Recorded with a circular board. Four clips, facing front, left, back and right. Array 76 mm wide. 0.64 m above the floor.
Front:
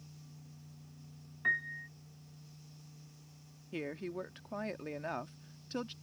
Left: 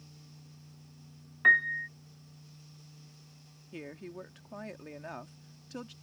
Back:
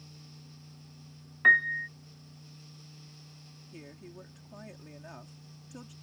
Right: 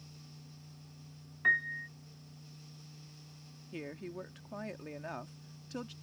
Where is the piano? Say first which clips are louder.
Left 6 dB, back 11 dB; 150° left.